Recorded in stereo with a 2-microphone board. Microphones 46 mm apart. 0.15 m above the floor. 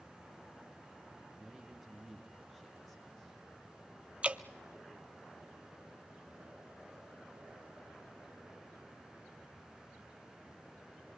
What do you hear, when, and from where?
1.4 s a man speaking: 10° right (ahead or behind), 3.5 m; by 3.4 s 5° left (ahead or behind), 4 m
4.2 s dripping: 30° right (ahead or behind), 0.7 m